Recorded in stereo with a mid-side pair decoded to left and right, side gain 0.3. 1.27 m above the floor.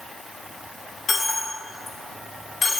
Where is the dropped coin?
65° left, 2 m.